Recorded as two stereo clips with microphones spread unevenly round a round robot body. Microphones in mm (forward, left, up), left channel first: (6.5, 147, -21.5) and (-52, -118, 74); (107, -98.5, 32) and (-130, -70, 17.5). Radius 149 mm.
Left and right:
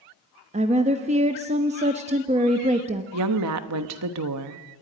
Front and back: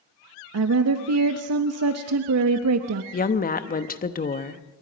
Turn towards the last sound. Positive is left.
turn(degrees=-65)